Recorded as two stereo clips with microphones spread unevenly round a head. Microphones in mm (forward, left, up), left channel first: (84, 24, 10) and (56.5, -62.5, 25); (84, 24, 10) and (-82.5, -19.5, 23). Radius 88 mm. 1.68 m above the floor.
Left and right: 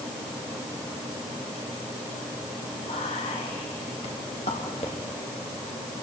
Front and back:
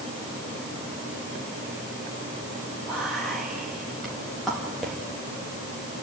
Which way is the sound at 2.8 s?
105° left.